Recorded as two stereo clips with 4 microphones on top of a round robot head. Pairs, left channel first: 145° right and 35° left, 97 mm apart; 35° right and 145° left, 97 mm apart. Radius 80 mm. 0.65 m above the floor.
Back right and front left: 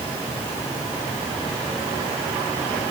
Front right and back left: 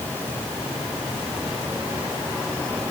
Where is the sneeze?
I don't hear a sneeze.